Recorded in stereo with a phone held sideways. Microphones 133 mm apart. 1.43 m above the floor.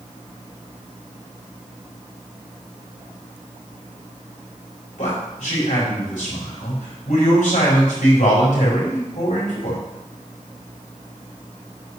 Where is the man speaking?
70° left (ahead or behind), 4.5 m.